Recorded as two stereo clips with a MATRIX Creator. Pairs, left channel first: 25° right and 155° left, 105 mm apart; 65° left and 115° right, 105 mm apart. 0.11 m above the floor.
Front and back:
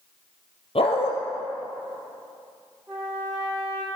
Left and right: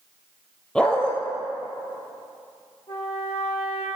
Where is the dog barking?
10° right, 1.1 m.